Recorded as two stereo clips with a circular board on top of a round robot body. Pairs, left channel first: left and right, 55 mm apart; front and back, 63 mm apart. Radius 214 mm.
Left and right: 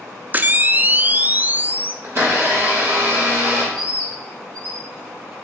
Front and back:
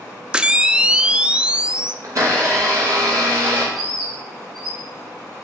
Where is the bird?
85° right, 4.5 m.